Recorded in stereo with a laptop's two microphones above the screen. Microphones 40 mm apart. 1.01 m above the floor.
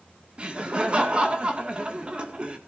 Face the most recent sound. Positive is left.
turn(degrees=-25)  # may be behind; listen again after turning